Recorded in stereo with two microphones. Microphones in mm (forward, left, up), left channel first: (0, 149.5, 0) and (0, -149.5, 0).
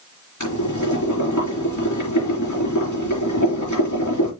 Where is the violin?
No violin in this recording.